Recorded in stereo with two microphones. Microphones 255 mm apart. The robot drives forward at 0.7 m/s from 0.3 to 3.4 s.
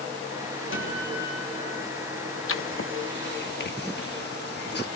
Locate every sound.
0.7 s a guitar: 55° left (ahead or behind), 5.5 m; by 1.9 s 45° left (ahead or behind), 6 m
2.5 s writing: 55° left (ahead or behind), 0.9 m; by 4.8 s 40° left (ahead or behind), 1.1 m